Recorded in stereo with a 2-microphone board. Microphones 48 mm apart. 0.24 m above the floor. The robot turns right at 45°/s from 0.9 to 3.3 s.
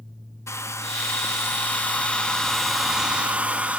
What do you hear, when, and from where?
0.5 s a hair dryer: 100° left, 0.6 m; by 3.8 s 155° right, 0.6 m